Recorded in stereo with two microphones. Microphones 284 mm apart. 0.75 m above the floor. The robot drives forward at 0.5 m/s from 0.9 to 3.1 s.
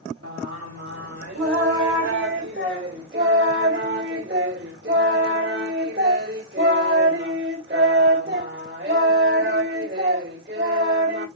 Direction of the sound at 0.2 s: 65° right (ahead or behind).